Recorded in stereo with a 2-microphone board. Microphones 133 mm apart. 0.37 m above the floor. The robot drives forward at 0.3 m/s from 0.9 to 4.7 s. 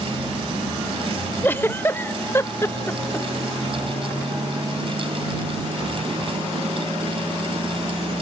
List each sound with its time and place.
1.4 s a giggle: 15° left (ahead or behind); by 3.3 s 20° left (ahead or behind)